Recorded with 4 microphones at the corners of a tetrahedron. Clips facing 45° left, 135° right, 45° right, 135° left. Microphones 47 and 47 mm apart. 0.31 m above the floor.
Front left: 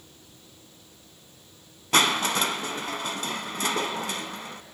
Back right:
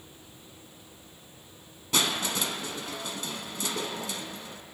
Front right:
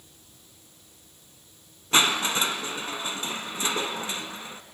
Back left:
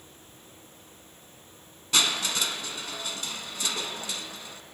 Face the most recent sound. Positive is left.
turn(degrees=15)